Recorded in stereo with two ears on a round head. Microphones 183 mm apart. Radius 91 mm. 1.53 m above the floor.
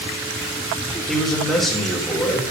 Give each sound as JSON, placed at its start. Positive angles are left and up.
{"t": 1.1, "sound": "a man speaking", "side_deg": 5, "distance_m": 4.0}